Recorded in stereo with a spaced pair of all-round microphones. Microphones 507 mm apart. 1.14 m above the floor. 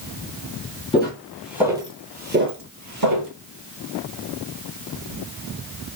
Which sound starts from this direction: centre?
Footsteps, at 0.9 s.